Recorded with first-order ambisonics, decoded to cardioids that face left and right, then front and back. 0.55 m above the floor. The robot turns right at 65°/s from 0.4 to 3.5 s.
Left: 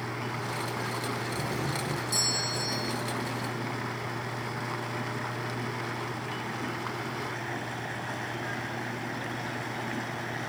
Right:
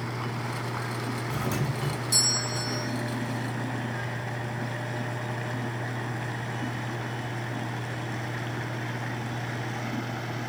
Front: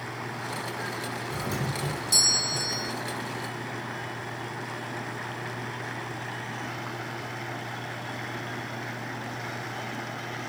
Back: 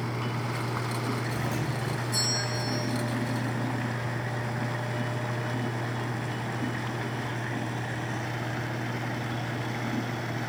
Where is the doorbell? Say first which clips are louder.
Even, front 1 dB; 80° right, 4.5 m; by 2.9 s 25° left, 4.5 m.